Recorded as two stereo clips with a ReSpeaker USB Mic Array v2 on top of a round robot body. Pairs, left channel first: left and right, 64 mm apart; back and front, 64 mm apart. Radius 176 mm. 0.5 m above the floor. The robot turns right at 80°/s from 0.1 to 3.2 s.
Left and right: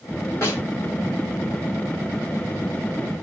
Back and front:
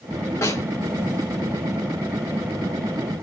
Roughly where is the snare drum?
Behind left.